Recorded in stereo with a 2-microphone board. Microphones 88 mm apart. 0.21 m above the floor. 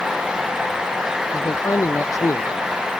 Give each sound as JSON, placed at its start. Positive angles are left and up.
{"t": 1.3, "sound": "a man speaking", "side_deg": 40}